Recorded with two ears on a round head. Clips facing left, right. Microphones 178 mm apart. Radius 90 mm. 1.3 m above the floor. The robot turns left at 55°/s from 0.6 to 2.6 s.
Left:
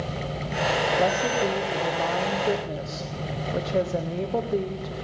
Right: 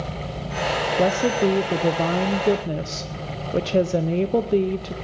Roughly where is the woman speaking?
Ahead right.